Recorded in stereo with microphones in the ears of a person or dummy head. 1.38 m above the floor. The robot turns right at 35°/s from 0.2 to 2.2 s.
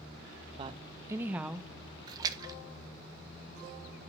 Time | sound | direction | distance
0.6 | a woman speaking | 40° right | 1.2 m
2.1 | a splash | 30° right (ahead or behind) | 1.3 m